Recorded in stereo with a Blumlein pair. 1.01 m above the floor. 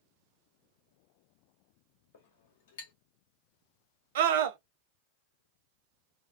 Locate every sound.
2.1 s a clink: 60° left, 0.8 m
4.2 s a scream: 55° right, 0.7 m